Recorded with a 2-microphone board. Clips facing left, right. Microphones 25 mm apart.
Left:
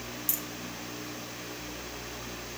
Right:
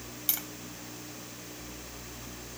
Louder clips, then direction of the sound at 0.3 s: Right 3 dB; 45° right (ahead or behind).